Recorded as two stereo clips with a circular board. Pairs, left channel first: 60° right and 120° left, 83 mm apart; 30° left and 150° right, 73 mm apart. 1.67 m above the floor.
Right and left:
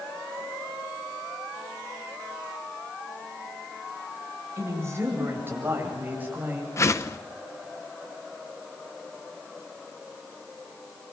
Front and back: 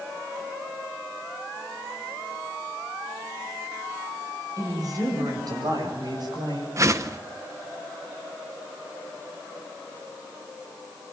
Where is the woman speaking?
175° left, 8 m; by 6.7 s 165° right, 8.5 m.